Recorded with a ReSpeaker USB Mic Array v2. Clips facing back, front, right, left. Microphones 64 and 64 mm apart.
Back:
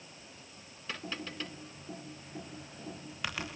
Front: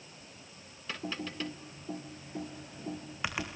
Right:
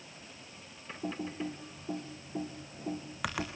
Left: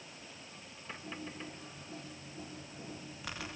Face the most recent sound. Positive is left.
turn(degrees=-70)